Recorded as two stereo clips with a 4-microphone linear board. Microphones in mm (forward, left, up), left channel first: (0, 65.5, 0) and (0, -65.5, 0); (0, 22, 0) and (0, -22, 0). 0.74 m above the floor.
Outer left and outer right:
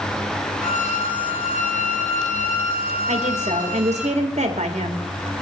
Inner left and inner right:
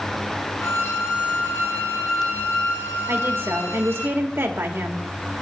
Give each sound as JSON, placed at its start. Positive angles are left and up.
{"t": 0.6, "sound": "a violin", "side_deg": 80, "distance_m": 2.0}
{"t": 3.1, "sound": "a woman speaking", "side_deg": -60, "distance_m": 1.5}